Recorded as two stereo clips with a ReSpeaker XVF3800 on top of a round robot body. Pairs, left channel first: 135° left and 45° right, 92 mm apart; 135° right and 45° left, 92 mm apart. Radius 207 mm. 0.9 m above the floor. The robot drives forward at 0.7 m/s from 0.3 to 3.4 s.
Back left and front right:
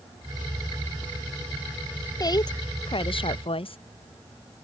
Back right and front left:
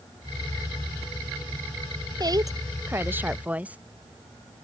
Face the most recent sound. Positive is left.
turn(degrees=120)